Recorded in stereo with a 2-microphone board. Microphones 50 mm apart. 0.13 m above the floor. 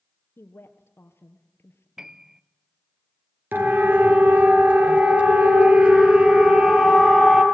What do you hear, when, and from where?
0.4 s a woman speaking: 60° left (ahead or behind), 2 m
2.0 s a piano: 15° right (ahead or behind), 0.7 m
3.5 s a siren: 45° right (ahead or behind), 2.5 m; by 7.4 s 15° right (ahead or behind), 4 m